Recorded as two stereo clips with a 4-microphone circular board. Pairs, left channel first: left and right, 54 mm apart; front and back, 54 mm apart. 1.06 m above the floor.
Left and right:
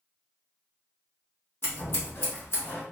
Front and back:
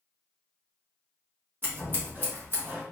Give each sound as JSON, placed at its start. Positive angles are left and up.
{"t": 1.6, "sound": "scissors", "azimuth_deg": 130, "distance_m": 1.1}